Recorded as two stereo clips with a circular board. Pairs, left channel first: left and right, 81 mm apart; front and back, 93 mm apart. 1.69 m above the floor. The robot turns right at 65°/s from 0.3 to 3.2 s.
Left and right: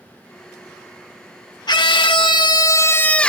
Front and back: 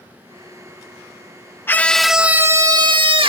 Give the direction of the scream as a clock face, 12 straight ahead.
10 o'clock.